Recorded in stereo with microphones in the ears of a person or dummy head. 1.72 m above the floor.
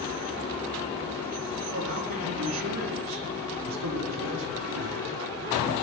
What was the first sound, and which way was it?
A man speaking, 80° right.